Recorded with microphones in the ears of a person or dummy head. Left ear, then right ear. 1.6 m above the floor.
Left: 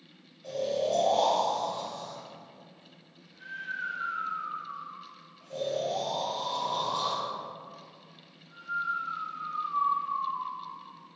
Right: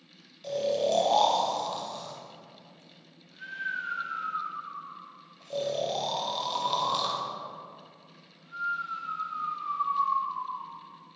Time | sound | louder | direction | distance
0.4 | snoring | right 2 dB | 40° right (ahead or behind) | 0.7 m